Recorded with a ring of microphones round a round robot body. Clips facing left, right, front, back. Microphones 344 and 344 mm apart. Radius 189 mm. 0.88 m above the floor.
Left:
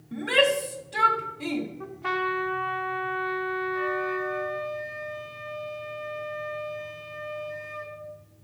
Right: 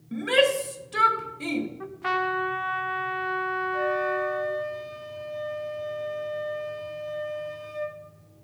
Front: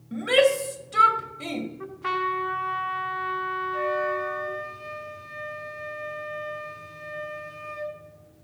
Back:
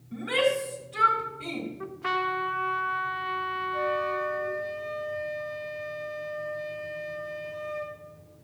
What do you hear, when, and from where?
0.1 s a shout: 20° right, 1.9 m
1.8 s a trumpet: 90° right, 1.0 m
3.7 s a flute: 65° right, 5 m